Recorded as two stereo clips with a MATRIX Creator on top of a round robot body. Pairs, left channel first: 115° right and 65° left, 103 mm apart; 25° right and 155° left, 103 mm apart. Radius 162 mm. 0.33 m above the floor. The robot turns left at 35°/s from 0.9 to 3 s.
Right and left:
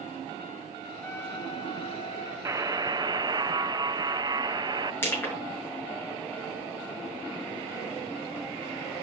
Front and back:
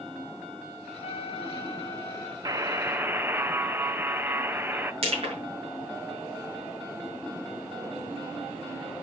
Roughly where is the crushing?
Behind.